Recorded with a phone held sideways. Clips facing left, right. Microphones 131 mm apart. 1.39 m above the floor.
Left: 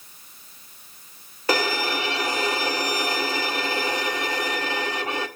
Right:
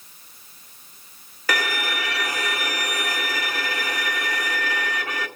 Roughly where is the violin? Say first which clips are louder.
Left 3 dB; left.